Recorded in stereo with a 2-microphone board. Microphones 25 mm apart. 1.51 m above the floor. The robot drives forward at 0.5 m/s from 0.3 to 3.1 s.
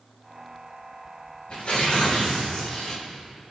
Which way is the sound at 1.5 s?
75° left (ahead or behind).